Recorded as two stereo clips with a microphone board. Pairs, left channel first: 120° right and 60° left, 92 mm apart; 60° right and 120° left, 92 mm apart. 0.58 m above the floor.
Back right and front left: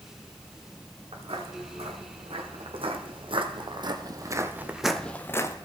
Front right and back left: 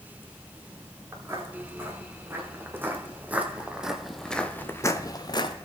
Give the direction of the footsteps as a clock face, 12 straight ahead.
10 o'clock.